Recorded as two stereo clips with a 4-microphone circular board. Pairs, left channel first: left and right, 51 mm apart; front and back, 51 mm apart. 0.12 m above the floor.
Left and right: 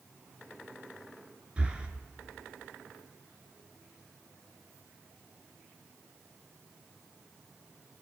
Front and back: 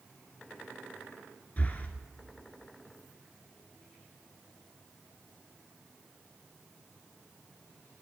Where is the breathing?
30° right, 0.8 m.